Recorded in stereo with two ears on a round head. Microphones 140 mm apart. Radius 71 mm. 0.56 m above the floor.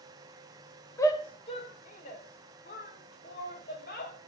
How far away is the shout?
About 1.3 m.